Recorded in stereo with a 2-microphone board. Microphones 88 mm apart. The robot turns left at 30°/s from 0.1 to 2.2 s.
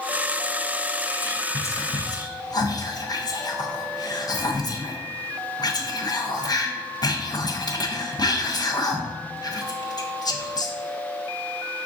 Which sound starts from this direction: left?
Whispering, at 1.2 s.